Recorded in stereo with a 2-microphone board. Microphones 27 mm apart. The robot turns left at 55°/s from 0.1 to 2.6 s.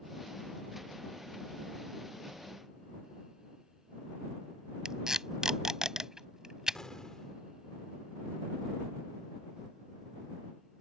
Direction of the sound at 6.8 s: 25° left (ahead or behind).